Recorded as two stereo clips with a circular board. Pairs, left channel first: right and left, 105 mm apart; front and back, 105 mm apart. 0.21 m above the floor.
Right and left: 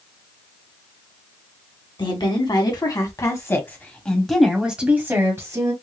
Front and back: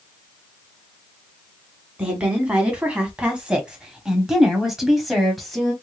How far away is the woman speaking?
About 1.7 m.